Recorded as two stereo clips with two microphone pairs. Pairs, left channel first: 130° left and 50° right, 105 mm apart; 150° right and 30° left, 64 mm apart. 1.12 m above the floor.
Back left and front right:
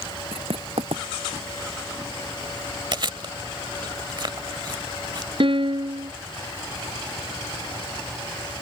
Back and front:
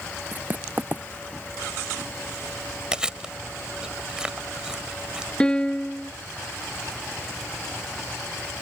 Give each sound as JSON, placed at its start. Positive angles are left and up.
{"t": 0.3, "sound": "writing", "azimuth_deg": -30}
{"t": 2.9, "sound": "chewing", "azimuth_deg": -45}
{"t": 5.4, "sound": "a piano", "azimuth_deg": -75}